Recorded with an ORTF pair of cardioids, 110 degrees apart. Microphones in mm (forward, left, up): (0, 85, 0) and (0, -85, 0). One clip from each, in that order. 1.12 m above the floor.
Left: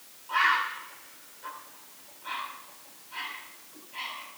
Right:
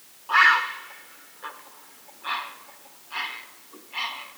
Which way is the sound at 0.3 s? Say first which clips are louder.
Right 7 dB; 60° right.